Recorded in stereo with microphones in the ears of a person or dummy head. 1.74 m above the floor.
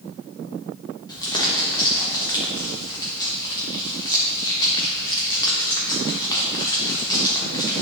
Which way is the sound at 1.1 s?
20° left (ahead or behind).